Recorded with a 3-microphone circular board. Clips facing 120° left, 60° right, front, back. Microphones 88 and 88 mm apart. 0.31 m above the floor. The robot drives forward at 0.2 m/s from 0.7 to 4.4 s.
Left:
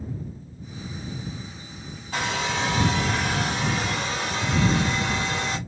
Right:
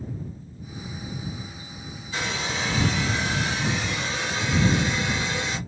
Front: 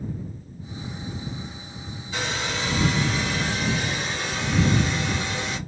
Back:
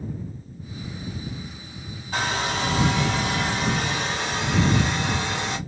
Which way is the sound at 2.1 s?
145° left.